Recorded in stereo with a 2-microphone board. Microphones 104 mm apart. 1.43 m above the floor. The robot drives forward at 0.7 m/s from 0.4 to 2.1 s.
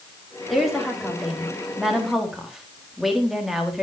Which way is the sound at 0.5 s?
Centre (ahead or behind).